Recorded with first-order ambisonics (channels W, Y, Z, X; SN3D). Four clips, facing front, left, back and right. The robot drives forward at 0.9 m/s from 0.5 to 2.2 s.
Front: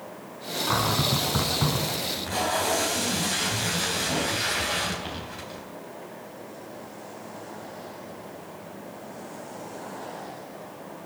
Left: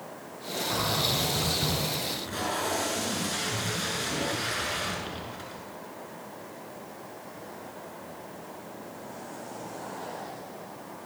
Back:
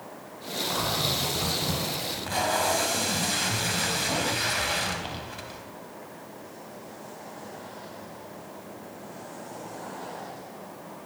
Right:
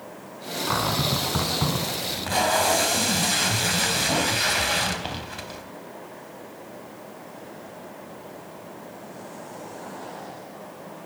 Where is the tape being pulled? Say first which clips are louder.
Right 8 dB, even; 95° right, 3.5 m; by 5.6 s 100° right, 3.5 m.